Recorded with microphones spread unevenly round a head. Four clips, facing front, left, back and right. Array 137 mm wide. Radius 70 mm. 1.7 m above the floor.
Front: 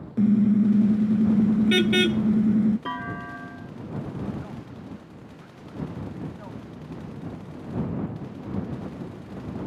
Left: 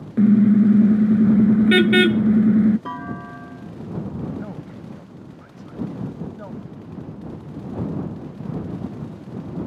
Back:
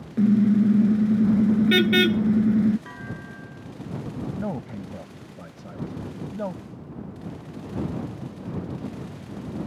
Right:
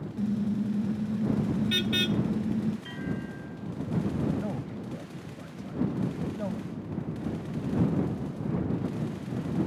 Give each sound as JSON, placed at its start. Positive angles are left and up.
{"t": 0.2, "sound": "a car horn", "azimuth_deg": 95}
{"t": 2.9, "sound": "a clunk", "azimuth_deg": 60}
{"t": 4.4, "sound": "a man speaking", "azimuth_deg": 180}